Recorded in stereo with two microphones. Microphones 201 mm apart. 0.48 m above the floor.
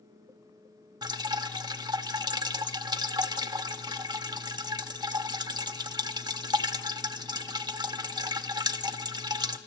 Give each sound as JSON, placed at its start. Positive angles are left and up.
{"t": 1.0, "sound": "dripping", "side_deg": -20, "distance_m": 0.7}